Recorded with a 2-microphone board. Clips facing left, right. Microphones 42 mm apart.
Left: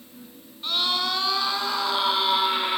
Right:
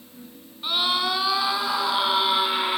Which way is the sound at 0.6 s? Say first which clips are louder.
Right 2 dB; 15° right (ahead or behind).